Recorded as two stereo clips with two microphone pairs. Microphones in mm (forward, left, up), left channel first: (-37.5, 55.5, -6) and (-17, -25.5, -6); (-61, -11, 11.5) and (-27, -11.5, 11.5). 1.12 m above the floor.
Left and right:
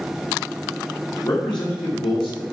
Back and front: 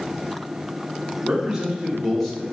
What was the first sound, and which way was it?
A man speaking, 75° left.